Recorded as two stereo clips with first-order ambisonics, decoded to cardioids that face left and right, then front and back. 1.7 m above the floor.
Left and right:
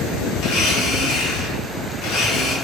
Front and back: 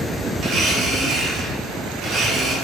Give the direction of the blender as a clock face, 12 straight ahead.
8 o'clock.